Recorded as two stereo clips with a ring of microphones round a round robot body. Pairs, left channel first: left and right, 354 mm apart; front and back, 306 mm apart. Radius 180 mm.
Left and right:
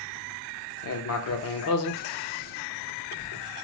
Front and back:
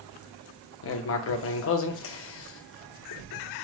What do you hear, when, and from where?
0.8 s writing: 45° left, 0.5 m